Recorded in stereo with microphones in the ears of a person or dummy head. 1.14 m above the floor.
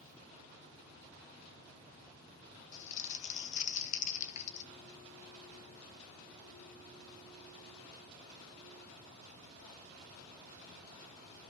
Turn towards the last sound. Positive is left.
turn(degrees=40)  # may be behind; listen again after turning